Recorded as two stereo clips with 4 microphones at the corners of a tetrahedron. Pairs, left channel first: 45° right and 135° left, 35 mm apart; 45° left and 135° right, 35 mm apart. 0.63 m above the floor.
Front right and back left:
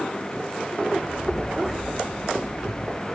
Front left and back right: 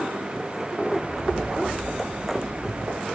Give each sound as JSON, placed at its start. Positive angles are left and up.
{"t": 0.9, "sound": "footsteps", "azimuth_deg": -125, "distance_m": 7.5}